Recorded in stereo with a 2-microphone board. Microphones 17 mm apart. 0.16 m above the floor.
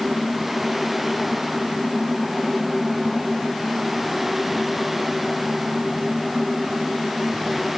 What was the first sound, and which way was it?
Only background noise.